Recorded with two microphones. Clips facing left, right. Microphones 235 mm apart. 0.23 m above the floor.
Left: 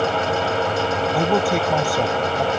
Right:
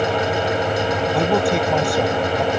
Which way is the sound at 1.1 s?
5° left (ahead or behind).